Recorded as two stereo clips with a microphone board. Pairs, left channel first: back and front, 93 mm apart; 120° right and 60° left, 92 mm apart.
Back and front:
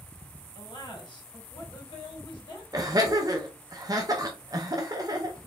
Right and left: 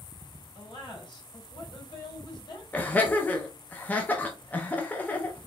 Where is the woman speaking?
150° right, 3 m.